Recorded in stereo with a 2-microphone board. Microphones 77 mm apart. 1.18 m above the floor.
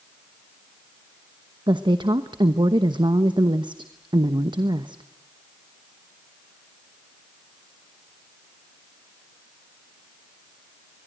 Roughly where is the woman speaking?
Right.